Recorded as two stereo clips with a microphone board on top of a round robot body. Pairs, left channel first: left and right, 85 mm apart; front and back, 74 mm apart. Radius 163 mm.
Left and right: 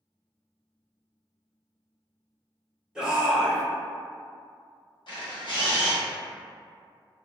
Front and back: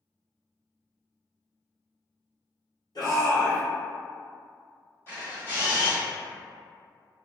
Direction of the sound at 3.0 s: 10° right.